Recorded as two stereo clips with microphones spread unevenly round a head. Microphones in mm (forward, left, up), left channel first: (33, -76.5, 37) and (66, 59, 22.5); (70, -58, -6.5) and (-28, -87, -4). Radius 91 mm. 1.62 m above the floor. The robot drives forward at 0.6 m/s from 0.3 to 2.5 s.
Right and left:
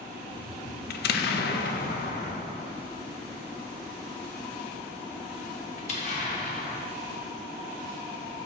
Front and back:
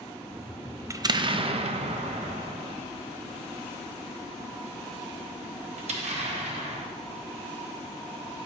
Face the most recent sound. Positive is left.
turn(degrees=-155)